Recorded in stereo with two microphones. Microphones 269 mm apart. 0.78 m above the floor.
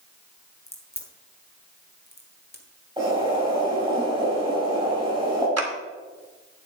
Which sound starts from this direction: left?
A crack, at 0.7 s.